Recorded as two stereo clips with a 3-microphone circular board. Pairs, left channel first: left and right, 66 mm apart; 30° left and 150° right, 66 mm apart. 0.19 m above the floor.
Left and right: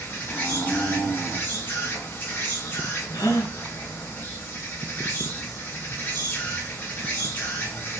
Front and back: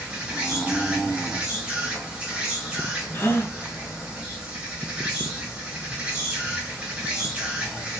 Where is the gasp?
80° left, 0.7 m.